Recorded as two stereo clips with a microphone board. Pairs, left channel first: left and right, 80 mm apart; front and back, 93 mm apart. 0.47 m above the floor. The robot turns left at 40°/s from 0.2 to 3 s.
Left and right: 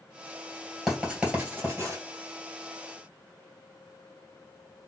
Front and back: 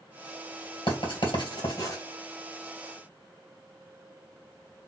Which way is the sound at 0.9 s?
Straight ahead.